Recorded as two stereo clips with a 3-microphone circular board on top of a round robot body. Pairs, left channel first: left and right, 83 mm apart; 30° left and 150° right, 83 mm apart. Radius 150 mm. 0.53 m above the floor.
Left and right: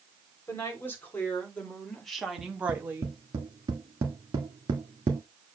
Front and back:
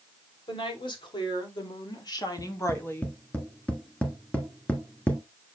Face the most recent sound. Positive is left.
turn(degrees=-45)